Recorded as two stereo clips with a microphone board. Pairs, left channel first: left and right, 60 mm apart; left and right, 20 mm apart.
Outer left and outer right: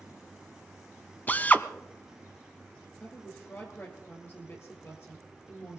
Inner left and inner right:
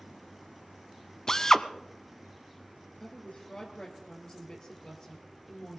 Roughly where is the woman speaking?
Left.